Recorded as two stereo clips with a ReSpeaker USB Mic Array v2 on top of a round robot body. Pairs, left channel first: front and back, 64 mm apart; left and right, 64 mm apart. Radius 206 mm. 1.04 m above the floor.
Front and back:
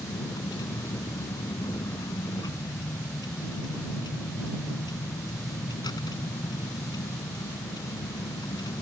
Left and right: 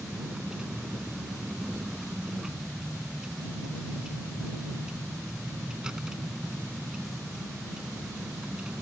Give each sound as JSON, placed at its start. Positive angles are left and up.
{"t": 0.0, "sound": "a vehicle", "azimuth_deg": -10}